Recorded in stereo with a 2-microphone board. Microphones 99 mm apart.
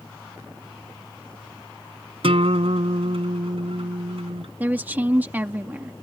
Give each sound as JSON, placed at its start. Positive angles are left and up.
{"t": 2.2, "sound": "a guitar", "side_deg": -75}
{"t": 4.6, "sound": "a woman speaking", "side_deg": -15}